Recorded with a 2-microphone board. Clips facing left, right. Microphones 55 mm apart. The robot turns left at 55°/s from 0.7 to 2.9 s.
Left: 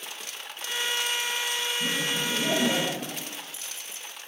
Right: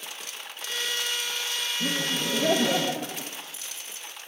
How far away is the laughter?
About 0.7 m.